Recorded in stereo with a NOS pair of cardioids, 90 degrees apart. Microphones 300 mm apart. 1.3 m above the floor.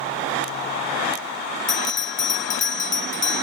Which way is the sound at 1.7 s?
40° left.